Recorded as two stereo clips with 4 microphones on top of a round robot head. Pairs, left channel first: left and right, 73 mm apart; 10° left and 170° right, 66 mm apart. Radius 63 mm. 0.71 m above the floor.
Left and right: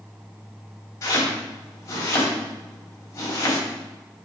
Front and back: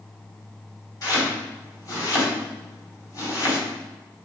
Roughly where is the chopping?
Ahead left.